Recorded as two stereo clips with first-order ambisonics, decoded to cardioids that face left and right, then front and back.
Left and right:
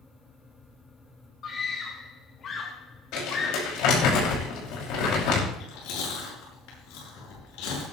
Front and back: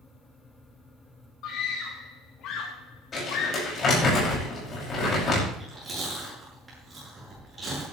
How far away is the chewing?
About 8 m.